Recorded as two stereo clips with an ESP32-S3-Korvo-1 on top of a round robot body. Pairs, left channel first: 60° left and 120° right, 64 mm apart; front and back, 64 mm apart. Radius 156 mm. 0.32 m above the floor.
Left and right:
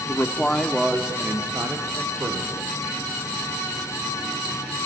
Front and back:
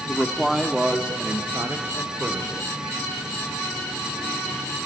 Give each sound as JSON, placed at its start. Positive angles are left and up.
{"t": 0.1, "sound": "a man speaking", "azimuth_deg": 75, "distance_m": 1.7}